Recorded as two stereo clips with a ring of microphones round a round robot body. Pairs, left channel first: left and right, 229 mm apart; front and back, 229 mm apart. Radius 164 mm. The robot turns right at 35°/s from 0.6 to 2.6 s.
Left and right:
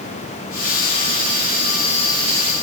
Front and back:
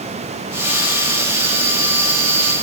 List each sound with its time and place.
Only background noise.